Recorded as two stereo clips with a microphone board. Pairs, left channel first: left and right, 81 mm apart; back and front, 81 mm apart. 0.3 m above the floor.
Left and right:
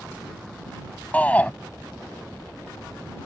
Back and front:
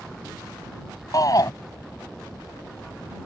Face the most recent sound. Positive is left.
turn(degrees=155)